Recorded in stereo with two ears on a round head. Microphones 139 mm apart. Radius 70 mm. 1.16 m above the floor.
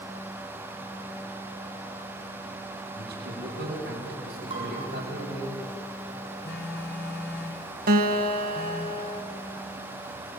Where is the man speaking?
75° right (ahead or behind), 7 m.